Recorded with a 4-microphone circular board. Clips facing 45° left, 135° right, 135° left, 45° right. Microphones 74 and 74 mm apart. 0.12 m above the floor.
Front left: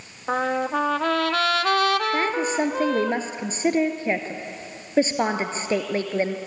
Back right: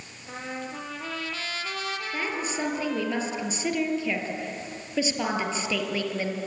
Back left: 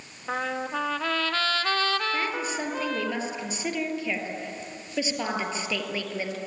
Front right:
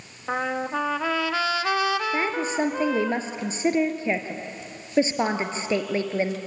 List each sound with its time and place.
0.3 s a trumpet: 35° left, 0.8 m
2.1 s a woman speaking: 5° left, 2.5 m